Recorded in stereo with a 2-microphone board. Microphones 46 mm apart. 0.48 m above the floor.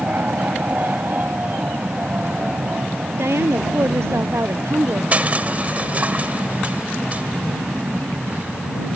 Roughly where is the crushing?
Right.